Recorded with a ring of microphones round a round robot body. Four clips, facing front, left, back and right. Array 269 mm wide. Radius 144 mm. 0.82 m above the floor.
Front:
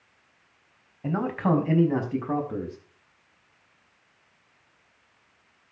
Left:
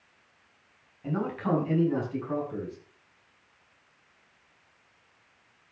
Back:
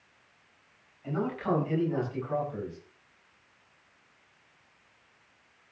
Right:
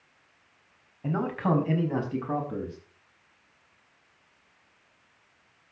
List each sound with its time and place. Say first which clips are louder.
1.0 s a man speaking: right 2 dB, front 5 dB; 25° right, 5 m; by 2.8 s 30° right, 6.5 m